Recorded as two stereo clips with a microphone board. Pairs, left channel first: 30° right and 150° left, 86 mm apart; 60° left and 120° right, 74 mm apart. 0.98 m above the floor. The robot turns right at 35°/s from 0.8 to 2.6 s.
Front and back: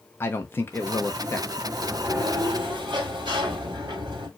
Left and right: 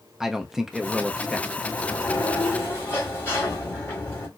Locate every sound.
0.2 s a man speaking: 45° right, 0.6 m; by 1.6 s 15° right, 0.6 m
1.7 s a sliding door: 90° left, 1.8 m; by 4.3 s 120° left, 1.8 m